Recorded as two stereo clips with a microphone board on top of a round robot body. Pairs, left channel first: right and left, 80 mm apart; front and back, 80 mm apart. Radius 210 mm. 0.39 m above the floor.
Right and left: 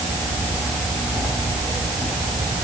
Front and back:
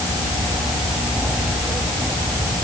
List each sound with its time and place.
Only background noise.